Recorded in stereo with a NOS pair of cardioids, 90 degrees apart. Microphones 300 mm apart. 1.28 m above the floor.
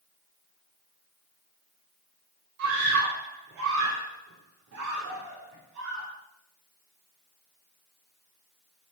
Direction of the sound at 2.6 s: 65° right.